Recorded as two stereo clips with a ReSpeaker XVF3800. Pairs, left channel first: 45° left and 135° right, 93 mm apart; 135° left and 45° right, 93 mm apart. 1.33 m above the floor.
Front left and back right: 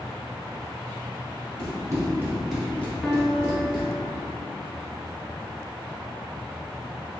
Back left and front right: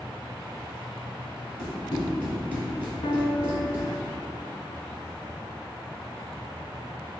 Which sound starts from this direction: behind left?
A piano, at 3.0 s.